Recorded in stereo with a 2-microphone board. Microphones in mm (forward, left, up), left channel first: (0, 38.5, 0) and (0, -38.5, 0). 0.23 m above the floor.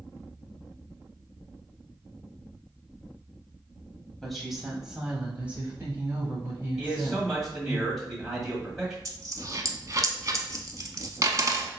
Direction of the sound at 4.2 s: Centre (ahead or behind).